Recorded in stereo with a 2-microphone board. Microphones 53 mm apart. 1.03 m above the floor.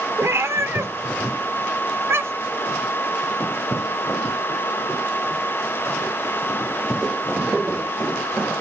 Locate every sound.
0.2 s a cat meowing: 70° right (ahead or behind), 1.3 m; by 2.6 s 55° right (ahead or behind), 2.5 m